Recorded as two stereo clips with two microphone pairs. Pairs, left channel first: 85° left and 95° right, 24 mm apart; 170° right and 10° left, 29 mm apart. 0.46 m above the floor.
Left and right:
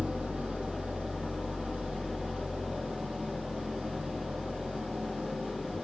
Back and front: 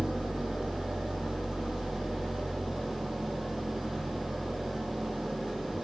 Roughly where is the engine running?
Ahead right.